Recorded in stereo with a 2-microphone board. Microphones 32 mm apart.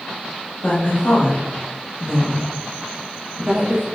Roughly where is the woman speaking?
Left.